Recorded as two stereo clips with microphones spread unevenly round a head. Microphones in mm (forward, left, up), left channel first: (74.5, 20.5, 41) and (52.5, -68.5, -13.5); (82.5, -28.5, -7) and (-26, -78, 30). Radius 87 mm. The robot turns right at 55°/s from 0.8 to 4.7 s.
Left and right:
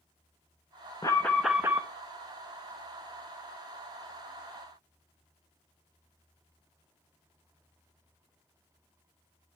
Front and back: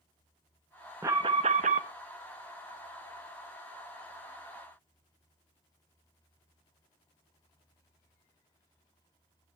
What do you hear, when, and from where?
1.0 s an alarm: 135° left, 0.6 m; by 1.9 s straight behind, 0.6 m